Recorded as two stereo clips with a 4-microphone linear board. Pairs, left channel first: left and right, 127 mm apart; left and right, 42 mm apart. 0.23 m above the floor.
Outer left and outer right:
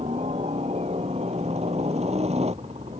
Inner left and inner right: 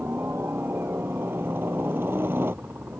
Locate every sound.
0.0 s a helicopter: 60° right (ahead or behind)